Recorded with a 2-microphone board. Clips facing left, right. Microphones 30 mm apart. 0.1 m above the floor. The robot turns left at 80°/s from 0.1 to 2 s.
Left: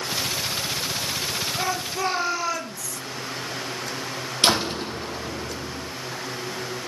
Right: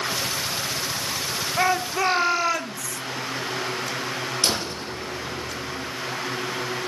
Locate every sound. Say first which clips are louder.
1.6 s a shout: right 8 dB; 100° right, 1.5 m; by 3.0 s 135° right, 1.5 m
4.4 s a door slam: left 8 dB; 65° left (ahead or behind), 3 m